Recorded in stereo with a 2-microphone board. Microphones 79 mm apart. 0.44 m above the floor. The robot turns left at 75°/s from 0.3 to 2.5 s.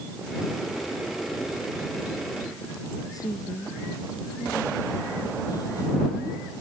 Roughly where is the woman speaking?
Left.